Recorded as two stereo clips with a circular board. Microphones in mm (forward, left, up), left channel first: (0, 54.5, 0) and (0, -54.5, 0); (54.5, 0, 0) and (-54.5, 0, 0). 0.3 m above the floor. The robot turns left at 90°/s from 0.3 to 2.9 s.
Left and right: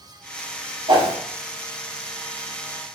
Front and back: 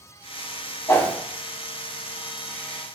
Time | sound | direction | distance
0.9 | a whoosh | 55° right | 1.0 m